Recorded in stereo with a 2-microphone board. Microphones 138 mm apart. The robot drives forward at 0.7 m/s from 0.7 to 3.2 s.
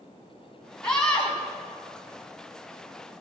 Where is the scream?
5° left (ahead or behind), 1.3 m; by 1.4 s 10° left (ahead or behind), 1.1 m.